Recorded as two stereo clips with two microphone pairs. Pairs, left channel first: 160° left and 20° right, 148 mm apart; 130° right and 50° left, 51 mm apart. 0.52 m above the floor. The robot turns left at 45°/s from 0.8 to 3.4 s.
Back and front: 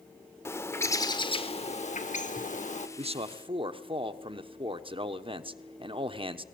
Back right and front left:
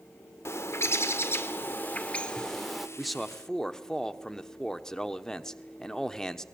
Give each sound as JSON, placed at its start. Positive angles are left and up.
{"t": 0.5, "sound": "a bird", "azimuth_deg": -130, "distance_m": 1.2}
{"t": 3.0, "sound": "a man speaking", "azimuth_deg": -35, "distance_m": 1.0}